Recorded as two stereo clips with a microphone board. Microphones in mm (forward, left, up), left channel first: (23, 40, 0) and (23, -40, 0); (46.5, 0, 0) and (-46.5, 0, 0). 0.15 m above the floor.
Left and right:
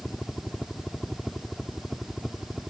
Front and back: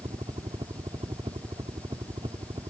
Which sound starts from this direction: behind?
A helicopter, at 0.0 s.